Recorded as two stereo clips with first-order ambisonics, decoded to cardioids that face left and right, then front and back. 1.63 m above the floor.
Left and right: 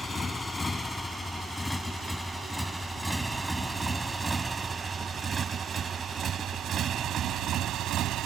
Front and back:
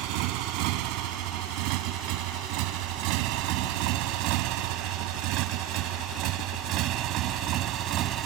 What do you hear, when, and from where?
0.0 s a motorcycle: 165° left; by 8.3 s 135° right